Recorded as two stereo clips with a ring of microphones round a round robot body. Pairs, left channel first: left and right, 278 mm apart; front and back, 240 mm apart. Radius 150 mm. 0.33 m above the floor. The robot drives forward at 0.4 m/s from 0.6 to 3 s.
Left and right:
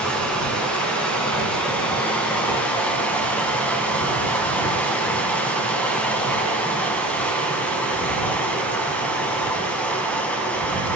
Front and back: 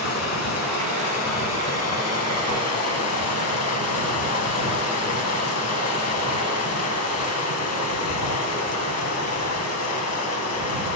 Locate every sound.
0.0 s running water: 5° left, 4 m